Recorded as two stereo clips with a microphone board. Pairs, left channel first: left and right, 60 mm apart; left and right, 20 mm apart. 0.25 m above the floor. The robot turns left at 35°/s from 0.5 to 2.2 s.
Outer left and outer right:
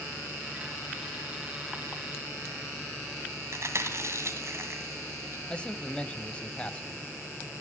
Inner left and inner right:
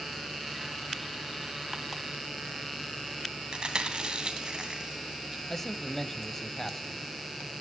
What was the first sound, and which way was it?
Chewing, 45° right (ahead or behind).